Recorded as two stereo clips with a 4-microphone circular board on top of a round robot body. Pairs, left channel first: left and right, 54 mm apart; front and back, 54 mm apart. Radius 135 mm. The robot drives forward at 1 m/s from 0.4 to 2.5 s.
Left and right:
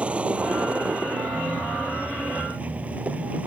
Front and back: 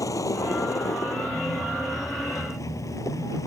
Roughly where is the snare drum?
I don't hear a snare drum.